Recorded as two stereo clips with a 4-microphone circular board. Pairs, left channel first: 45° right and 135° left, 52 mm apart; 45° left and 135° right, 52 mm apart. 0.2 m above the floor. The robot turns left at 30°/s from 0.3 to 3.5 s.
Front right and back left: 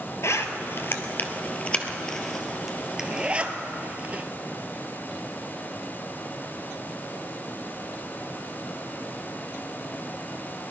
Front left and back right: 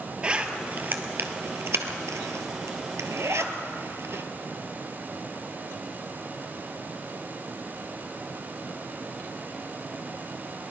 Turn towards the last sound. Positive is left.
turn(degrees=-165)